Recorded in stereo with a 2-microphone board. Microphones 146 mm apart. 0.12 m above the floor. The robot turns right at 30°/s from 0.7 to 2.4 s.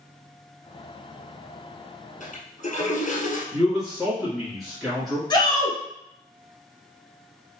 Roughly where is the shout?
Left.